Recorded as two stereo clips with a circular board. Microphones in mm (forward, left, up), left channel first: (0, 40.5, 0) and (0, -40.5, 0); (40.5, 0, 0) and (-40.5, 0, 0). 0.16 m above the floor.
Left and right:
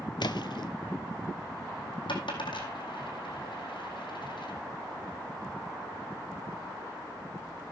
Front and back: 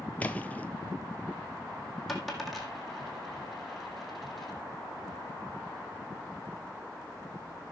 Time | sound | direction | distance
0.2 | a splash | 70° left | 0.6 m
2.1 | a dropped coin | 90° left | 2 m